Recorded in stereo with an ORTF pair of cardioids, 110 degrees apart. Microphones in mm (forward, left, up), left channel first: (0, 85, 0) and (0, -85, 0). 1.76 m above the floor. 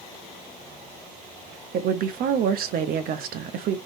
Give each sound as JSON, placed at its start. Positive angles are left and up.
{"t": 1.7, "sound": "a woman speaking", "azimuth_deg": -65, "distance_m": 0.8}